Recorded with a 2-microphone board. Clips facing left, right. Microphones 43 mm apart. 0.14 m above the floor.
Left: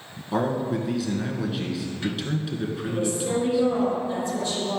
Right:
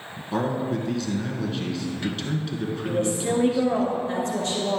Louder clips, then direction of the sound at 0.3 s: Left 1 dB; 5° left (ahead or behind).